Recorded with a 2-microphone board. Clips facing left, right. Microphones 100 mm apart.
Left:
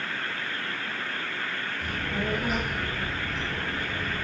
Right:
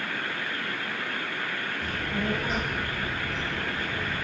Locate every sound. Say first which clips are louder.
1.8 s a child speaking: even; 5° left (ahead or behind), 4.5 m